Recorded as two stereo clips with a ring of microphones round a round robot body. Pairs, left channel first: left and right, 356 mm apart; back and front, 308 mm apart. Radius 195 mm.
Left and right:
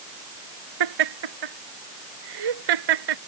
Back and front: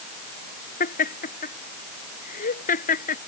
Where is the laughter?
110° right.